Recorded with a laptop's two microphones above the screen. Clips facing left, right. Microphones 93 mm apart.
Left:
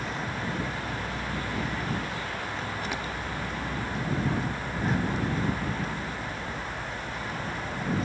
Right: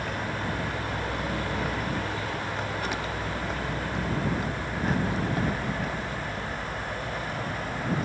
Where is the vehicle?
60° right (ahead or behind); by 8.1 s 55° right (ahead or behind).